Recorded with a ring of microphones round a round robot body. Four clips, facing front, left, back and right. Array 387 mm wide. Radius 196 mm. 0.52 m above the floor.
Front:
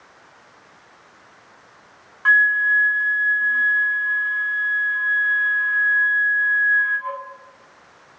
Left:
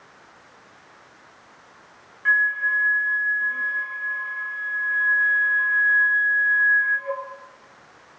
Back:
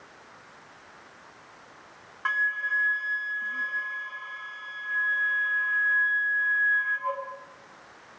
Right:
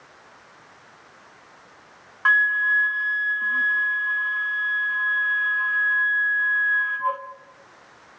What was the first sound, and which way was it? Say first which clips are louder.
A flute: right 2 dB, front 11 dB; 85° right.